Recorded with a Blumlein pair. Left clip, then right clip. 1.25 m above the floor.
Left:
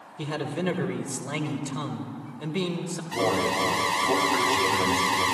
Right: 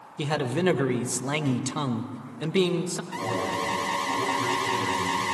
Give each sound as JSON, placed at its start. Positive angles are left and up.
{"t": 0.2, "sound": "a man speaking", "azimuth_deg": -70, "distance_m": 1.0}
{"t": 3.1, "sound": "an alarm", "azimuth_deg": 40, "distance_m": 4.0}